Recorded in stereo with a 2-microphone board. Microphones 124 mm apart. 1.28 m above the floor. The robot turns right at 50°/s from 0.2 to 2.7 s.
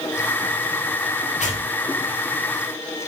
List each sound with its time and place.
1.4 s tearing paper: 80° left, 5 m; by 1.6 s 85° left, 5 m